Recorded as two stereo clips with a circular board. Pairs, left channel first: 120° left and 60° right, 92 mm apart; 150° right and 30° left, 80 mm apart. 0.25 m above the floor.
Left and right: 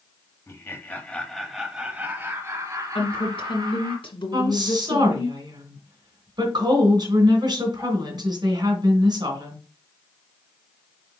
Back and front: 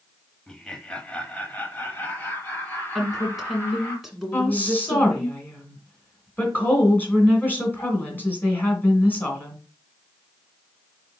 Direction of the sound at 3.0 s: 120° left.